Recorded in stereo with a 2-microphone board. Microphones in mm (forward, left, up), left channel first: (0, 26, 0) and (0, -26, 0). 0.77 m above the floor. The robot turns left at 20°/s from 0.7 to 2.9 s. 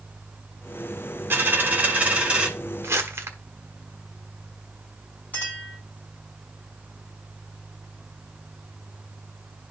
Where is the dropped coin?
40° right (ahead or behind), 1.6 m; by 2.5 s 20° right (ahead or behind), 1.6 m.